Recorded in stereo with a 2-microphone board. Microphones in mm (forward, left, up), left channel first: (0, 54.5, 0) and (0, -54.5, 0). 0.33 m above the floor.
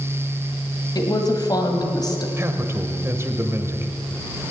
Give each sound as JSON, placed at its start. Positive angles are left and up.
{"t": 0.9, "sound": "a woman speaking", "side_deg": 35, "distance_m": 1.9}
{"t": 2.4, "sound": "a man speaking", "side_deg": -25, "distance_m": 1.1}